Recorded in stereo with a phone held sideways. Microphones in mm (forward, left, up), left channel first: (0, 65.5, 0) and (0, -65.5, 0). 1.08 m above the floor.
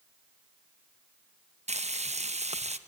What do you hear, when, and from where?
1.7 s frying: 60° right (ahead or behind), 0.9 m